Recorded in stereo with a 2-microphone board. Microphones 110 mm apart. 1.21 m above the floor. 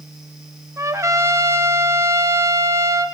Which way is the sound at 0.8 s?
25° right (ahead or behind).